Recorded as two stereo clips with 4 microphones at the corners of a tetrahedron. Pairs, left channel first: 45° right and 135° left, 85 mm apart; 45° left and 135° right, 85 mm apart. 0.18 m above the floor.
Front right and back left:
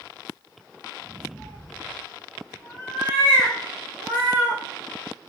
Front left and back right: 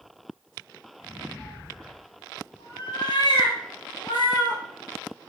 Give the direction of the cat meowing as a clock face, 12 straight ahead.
11 o'clock.